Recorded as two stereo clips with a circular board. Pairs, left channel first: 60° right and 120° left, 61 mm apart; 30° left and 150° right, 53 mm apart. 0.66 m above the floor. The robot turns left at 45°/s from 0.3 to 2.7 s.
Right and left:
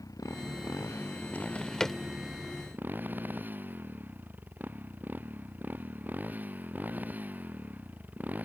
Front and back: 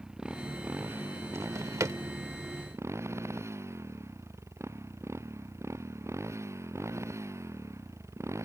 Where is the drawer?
120° right; by 2.0 s 150° right.